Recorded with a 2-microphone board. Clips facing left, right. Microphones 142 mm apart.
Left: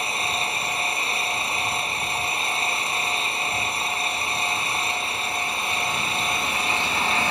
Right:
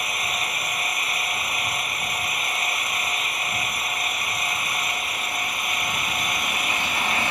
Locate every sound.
0.0 s an engine running: 30° left (ahead or behind)